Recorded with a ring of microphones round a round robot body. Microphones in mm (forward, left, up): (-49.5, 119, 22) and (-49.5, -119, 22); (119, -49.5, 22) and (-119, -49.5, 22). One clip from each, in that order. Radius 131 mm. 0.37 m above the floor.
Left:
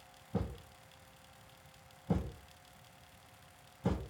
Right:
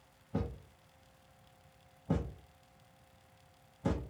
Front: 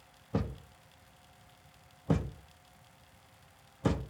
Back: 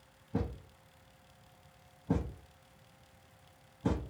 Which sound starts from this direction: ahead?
A thud, at 0.3 s.